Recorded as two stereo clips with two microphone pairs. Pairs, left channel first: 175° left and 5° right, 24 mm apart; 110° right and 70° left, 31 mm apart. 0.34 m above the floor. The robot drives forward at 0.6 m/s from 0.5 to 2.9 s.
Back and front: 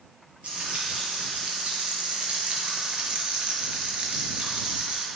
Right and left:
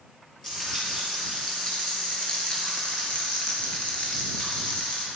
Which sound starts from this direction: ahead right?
Frying, at 0.4 s.